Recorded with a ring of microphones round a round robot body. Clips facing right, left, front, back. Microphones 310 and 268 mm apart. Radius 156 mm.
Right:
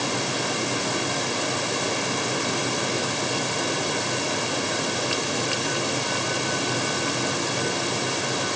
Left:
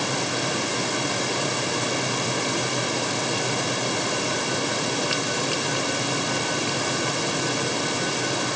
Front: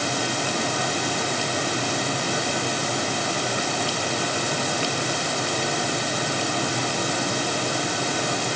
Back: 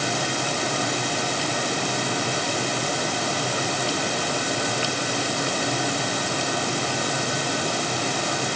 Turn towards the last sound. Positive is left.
No sound to turn to.